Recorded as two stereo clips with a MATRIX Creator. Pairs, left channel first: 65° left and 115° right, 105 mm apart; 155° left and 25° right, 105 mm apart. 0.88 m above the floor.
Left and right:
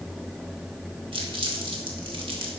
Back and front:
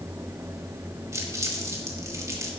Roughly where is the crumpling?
Right.